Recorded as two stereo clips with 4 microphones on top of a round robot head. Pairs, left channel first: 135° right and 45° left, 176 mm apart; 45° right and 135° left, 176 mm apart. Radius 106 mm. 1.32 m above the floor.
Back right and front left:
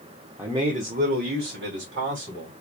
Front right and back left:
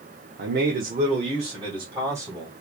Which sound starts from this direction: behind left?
A man speaking, at 0.4 s.